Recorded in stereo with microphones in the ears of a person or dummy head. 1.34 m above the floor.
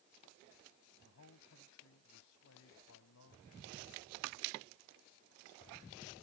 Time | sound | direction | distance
1.1 | a man speaking | 65° left (ahead or behind) | ?